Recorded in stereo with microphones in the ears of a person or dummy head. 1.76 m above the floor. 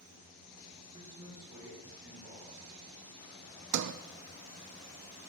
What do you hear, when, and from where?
0.9 s a man speaking: 25° right (ahead or behind), 6 m; by 3.0 s 15° right (ahead or behind), 5 m
3.7 s a sliding door: 70° right (ahead or behind), 0.7 m